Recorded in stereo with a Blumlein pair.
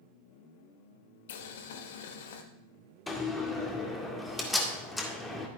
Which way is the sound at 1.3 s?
55° left.